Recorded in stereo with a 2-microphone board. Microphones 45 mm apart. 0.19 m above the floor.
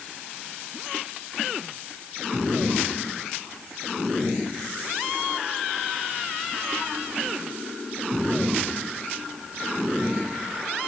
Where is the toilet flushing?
I don't hear a toilet flushing.